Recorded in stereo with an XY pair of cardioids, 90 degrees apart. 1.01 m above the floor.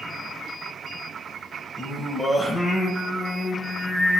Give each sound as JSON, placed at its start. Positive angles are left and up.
{"t": 1.8, "sound": "singing", "azimuth_deg": 25, "distance_m": 8.0}